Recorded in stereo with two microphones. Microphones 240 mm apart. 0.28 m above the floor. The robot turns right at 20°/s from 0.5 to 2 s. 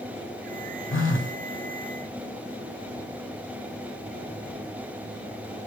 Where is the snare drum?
No snare drum in this recording.